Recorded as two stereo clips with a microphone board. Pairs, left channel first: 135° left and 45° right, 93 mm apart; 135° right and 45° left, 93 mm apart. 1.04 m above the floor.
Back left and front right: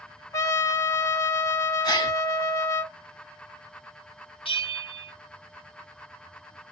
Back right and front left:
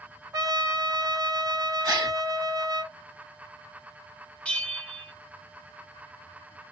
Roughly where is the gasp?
Left.